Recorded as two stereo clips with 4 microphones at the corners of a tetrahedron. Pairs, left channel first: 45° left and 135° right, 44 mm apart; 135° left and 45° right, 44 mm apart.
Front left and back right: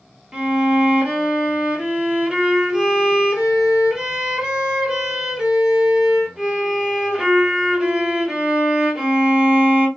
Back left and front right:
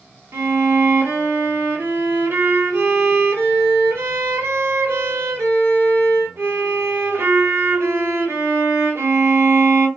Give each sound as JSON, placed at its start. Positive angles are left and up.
{"t": 0.3, "sound": "a violin", "azimuth_deg": -60, "distance_m": 1.3}